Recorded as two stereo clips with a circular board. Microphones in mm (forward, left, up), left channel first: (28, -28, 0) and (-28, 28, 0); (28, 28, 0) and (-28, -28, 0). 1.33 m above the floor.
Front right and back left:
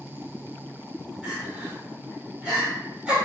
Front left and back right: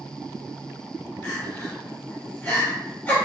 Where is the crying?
75° left, 1.0 m.